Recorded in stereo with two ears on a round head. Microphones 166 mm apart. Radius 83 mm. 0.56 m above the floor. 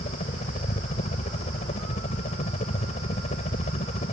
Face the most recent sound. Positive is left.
turn(degrees=35)  # may be behind; listen again after turning